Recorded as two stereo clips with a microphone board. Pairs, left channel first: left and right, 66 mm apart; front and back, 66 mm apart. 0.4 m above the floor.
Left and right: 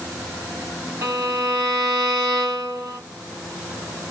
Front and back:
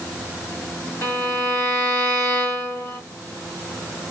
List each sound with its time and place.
1.0 s a violin: 50° right, 4 m